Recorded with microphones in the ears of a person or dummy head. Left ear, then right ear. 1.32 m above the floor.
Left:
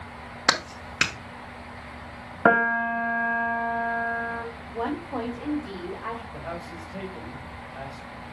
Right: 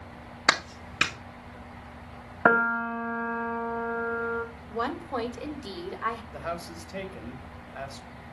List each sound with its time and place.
0.5 s a clap: 5° left (ahead or behind), 1.2 m
2.5 s a piano: 5° left (ahead or behind), 0.8 m
4.7 s a woman speaking: 65° right (ahead or behind), 2.5 m
6.3 s a man speaking: 80° right, 2 m